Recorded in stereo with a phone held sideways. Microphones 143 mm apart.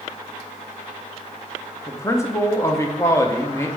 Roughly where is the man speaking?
Centre.